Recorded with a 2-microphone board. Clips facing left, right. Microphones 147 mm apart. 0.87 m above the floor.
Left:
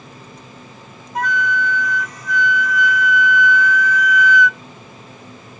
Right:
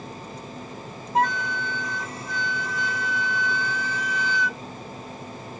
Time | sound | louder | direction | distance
1.1 | a flute | left 3 dB | 30° right (ahead or behind) | ?